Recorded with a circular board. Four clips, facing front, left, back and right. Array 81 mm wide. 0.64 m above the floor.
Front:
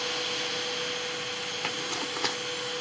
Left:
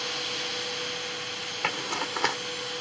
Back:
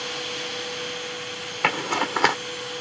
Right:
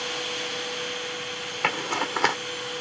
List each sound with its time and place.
1.6 s a zipper: 160° right